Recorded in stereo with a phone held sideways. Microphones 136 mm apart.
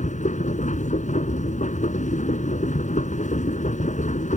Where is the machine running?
70° left (ahead or behind).